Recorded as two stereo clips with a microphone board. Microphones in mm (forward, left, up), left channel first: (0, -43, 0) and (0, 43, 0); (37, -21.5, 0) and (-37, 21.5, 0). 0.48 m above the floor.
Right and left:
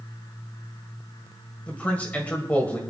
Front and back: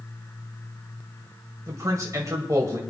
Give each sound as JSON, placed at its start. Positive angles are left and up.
{"t": 1.7, "sound": "a man speaking", "azimuth_deg": -160, "distance_m": 2.0}